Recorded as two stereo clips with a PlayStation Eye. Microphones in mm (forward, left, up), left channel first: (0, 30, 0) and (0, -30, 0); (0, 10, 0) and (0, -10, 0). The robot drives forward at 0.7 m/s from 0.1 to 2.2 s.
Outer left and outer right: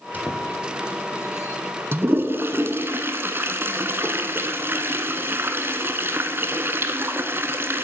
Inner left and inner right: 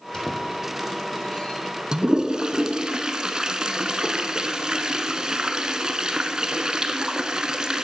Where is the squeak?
30° left (ahead or behind), 2.5 m; by 1.6 s 45° left (ahead or behind), 1.5 m.